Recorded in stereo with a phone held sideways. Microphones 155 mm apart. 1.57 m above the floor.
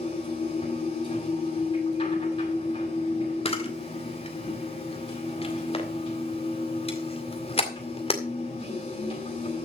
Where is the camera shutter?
40° left (ahead or behind), 2 m.